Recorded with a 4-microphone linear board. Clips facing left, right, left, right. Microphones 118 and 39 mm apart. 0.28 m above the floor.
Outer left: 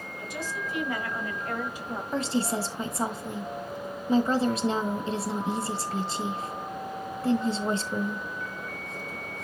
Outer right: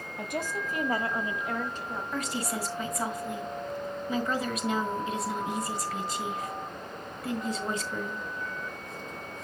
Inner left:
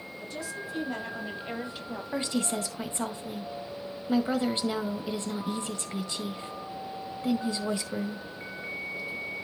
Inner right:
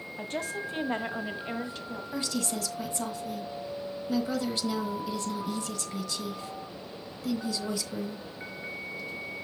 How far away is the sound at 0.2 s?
About 1.7 m.